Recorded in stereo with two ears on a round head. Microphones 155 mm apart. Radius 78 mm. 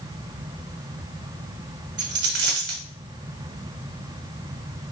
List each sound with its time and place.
2.0 s a dropped coin: 75° right (ahead or behind), 1.7 m